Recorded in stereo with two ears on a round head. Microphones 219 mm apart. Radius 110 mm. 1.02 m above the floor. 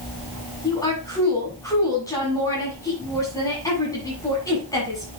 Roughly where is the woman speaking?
Centre.